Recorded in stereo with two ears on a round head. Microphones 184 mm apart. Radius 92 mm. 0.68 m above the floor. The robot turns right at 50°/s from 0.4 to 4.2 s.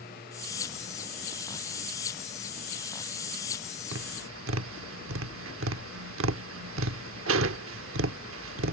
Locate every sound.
3.9 s tapping: 65° right (ahead or behind); by 8.7 s 75° right (ahead or behind)